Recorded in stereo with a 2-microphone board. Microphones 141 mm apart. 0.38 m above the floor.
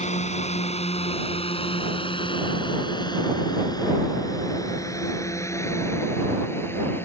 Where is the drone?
60° left (ahead or behind); by 7.0 s 15° left (ahead or behind).